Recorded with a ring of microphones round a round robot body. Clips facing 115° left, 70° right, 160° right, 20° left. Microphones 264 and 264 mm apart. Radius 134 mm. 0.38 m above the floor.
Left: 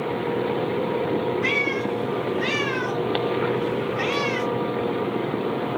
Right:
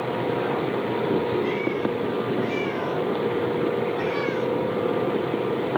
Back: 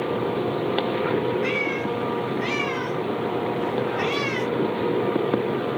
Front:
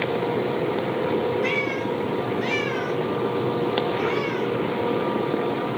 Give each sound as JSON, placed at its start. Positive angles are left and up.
{"t": 1.4, "sound": "a cat meowing", "azimuth_deg": 110, "distance_m": 2.0}